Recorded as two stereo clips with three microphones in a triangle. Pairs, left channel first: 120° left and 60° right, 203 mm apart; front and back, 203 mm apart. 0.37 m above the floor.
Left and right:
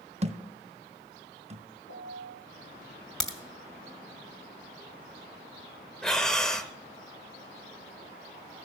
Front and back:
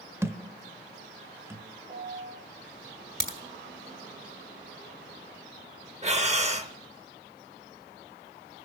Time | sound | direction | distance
0.2 | a thud | 105° right | 0.6 m
1.9 | a piano | 120° left | 4 m
3.2 | a crack | 150° right | 2.0 m
6.0 | breathing | 155° right | 0.7 m